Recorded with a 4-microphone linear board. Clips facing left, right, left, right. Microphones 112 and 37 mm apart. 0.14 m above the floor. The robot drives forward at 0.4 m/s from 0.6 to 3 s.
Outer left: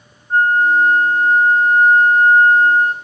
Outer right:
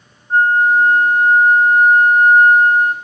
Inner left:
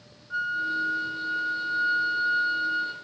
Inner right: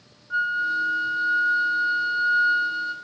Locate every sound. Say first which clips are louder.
0.3 s a flute: outer right 1 dB, inner right 4 dB; 20° right (ahead or behind), 0.8 m; by 2.9 s 15° right (ahead or behind), 1.1 m